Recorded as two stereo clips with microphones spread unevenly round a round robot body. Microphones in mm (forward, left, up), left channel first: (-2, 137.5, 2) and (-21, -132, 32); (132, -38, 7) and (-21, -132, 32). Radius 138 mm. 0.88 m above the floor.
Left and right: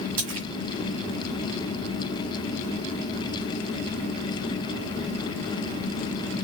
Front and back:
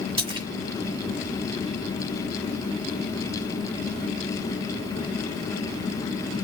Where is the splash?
90° right, 1.5 m.